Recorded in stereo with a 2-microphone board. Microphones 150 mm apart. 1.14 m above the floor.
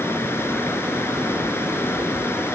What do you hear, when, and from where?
0.0 s running water: 15° left (ahead or behind)